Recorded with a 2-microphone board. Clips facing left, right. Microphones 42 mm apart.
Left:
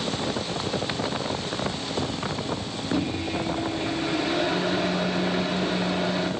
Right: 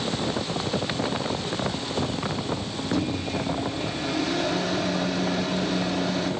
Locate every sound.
2.9 s a microwave: 20° left (ahead or behind), 0.9 m